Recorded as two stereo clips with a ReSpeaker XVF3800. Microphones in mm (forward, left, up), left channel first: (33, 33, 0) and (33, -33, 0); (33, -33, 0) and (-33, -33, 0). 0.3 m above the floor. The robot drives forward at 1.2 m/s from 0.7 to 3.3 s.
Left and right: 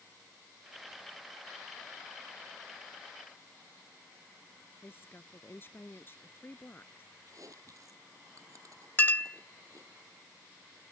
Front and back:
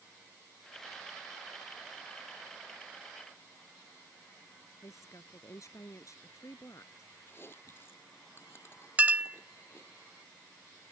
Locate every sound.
4.8 s a woman speaking: 35° left
7.3 s chewing: 55° right
9.0 s a clink: 130° left